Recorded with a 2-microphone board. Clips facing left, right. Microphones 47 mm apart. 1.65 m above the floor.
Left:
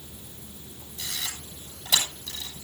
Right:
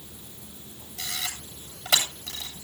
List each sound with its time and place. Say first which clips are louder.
1.0 s a camera shutter: right 2 dB; 70° right (ahead or behind), 8.5 m